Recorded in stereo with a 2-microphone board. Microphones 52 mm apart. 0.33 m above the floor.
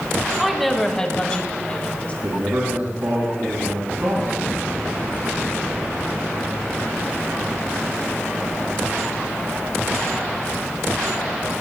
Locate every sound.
0.4 s a woman speaking: 5° right (ahead or behind), 1.7 m; by 2.1 s 30° left (ahead or behind), 3.5 m
2.2 s a man speaking: 55° right (ahead or behind), 3.5 m